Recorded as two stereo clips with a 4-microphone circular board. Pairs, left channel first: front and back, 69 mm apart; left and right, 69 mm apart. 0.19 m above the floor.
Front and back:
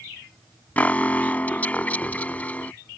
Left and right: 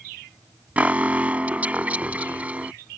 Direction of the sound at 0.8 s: 45° right.